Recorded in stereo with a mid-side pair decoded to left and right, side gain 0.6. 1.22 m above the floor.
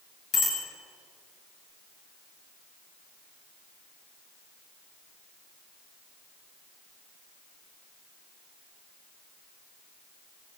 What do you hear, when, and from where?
0.3 s a bicycle bell: 45° left, 6 m